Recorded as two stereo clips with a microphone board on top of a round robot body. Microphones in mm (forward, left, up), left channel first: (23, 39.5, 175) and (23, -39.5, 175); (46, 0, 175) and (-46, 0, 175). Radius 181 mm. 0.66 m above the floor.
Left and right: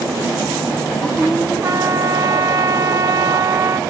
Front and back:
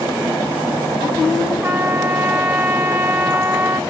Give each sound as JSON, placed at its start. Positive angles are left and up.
{"t": 1.6, "sound": "a trumpet", "azimuth_deg": -130, "distance_m": 0.9}